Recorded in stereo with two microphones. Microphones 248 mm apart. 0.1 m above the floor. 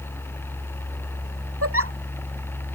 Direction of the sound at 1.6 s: 70° right (ahead or behind).